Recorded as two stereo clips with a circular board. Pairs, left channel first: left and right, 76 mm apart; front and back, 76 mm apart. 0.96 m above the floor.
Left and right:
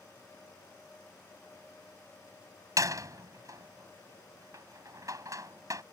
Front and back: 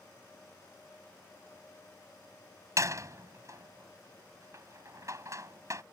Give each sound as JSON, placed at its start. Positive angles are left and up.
{"t": 2.8, "sound": "a door slam", "azimuth_deg": -135}